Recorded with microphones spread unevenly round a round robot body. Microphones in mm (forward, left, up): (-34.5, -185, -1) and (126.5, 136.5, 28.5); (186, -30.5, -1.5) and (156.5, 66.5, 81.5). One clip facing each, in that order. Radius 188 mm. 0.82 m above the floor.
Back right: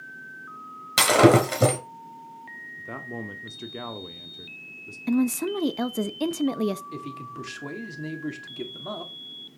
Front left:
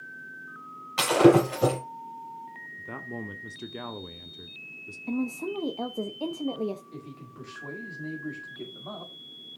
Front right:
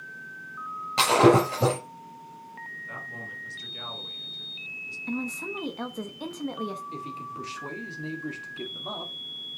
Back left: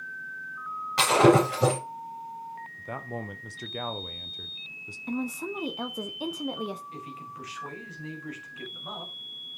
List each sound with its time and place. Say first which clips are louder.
1.0 s breaking glass: even, front right 1 dB; 150° right, 5 m
2.8 s a man speaking: back right 2 dB, back left 7 dB; 160° left, 0.8 m
5.1 s a woman speaking: back right 7 dB, back left 1 dB; 130° right, 0.7 m
6.9 s a man speaking: back right 5 dB, front right 4 dB; 95° right, 2.5 m